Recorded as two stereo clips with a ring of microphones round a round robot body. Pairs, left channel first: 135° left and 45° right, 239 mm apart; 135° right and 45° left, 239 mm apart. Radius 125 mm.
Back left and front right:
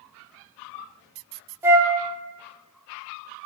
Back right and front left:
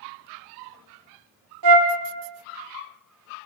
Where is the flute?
35° left, 0.7 m.